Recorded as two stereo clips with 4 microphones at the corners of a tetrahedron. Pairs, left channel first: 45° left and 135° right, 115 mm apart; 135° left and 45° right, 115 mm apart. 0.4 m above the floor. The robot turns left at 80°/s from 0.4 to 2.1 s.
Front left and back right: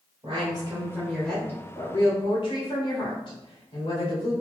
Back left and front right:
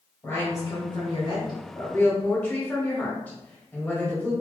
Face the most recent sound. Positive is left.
turn(degrees=65)